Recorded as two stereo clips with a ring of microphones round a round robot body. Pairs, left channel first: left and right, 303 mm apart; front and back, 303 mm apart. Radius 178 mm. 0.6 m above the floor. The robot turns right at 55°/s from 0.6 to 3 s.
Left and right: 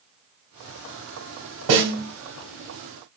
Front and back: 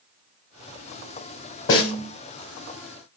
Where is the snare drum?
55° right, 0.9 m; by 2.0 s 35° right, 0.9 m.